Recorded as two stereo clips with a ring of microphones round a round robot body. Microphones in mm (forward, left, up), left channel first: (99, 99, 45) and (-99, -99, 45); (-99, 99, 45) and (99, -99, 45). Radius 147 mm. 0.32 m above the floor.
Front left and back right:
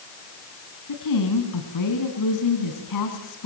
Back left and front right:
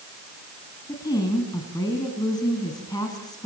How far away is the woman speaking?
About 4 m.